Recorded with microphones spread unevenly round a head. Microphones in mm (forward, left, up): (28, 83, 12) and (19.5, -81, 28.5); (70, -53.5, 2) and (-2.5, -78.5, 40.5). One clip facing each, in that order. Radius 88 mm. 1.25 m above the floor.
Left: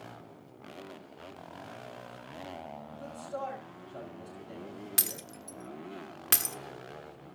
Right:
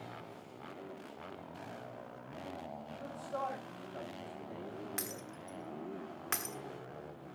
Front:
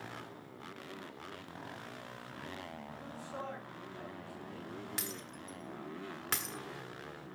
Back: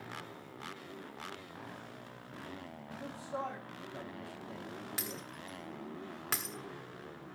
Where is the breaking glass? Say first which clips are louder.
Left 1 dB, back 1 dB; 135° left, 1.2 m.